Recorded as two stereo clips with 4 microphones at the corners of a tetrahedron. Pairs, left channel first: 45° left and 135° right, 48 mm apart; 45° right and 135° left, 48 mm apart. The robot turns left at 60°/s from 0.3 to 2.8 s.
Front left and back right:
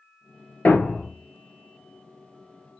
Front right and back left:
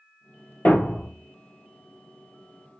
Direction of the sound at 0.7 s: 5° right.